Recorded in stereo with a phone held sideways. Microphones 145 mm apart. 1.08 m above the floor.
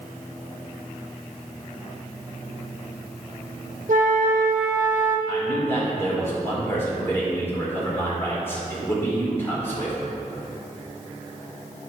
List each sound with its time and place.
3.9 s a flute: 60° right (ahead or behind), 1.2 m
5.3 s a man speaking: 15° left (ahead or behind), 4 m